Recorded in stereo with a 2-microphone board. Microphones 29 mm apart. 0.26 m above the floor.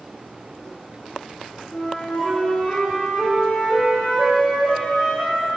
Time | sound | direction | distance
1.7 | a flute | 70° left (ahead or behind) | 2.5 m